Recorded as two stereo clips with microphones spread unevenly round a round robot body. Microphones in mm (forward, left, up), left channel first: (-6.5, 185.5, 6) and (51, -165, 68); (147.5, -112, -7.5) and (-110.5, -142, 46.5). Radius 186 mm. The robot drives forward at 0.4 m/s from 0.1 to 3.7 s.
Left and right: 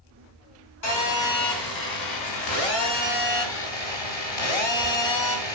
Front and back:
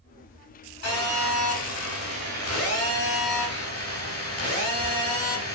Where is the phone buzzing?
60° left, 2.5 m; by 5.5 s 90° left, 2 m.